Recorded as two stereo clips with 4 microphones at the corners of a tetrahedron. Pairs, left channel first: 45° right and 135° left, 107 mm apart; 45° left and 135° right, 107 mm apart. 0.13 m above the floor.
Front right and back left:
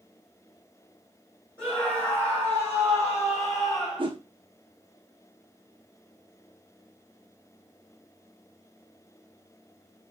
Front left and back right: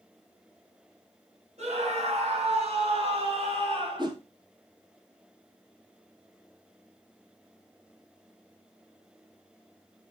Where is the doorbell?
I don't hear a doorbell.